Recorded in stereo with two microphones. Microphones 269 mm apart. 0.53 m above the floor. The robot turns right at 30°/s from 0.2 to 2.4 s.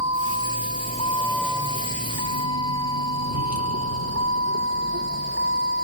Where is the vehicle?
65° left (ahead or behind); by 5.8 s 40° right (ahead or behind).